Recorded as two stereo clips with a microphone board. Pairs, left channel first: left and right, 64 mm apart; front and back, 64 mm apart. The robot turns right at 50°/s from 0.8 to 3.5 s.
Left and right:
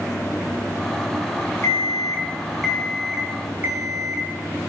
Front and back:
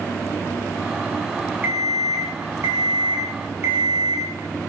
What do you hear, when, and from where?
1.6 s an alarm clock: 125° left, 3 m; by 4.2 s 140° right, 3 m